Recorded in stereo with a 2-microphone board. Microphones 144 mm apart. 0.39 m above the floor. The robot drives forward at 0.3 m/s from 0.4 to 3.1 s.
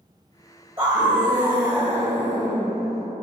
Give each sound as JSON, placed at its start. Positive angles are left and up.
{"t": 0.8, "sound": "a scream", "side_deg": -30, "distance_m": 1.2}